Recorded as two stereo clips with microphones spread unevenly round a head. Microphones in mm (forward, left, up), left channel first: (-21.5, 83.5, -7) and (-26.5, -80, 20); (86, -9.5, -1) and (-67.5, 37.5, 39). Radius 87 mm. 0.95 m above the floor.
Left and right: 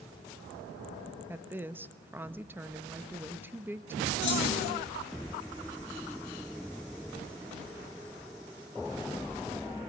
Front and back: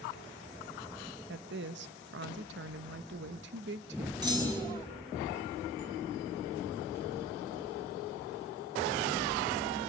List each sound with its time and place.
1.3 s a woman speaking: 175° right, 1.0 m
4.2 s a clunk: 100° left, 7 m